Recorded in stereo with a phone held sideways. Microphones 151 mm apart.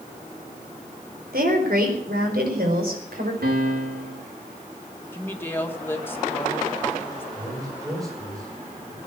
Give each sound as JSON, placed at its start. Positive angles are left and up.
{"t": 1.3, "sound": "a woman speaking", "side_deg": -85, "distance_m": 4.5}
{"t": 3.4, "sound": "a piano", "side_deg": -85, "distance_m": 3.5}
{"t": 5.1, "sound": "a woman speaking", "side_deg": 15, "distance_m": 2.0}
{"t": 7.3, "sound": "a man speaking", "side_deg": -20, "distance_m": 7.5}